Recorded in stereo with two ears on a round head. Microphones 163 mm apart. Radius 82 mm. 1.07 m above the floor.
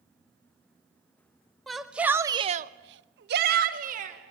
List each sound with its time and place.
1.7 s a shout: centre (ahead or behind), 1.9 m; by 4.2 s 45° right (ahead or behind), 2.5 m